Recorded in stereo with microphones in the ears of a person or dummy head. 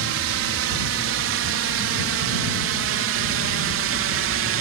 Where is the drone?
70° right (ahead or behind); by 4.6 s 60° right (ahead or behind).